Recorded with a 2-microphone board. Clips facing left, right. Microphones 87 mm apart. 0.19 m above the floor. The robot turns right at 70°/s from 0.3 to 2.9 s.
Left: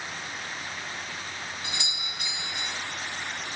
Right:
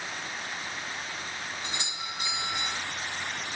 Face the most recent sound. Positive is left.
turn(degrees=-15)